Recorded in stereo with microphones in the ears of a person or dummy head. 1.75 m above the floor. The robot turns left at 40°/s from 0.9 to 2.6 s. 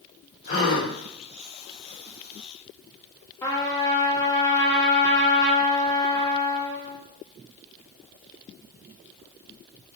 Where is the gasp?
45° left (ahead or behind), 1.9 m.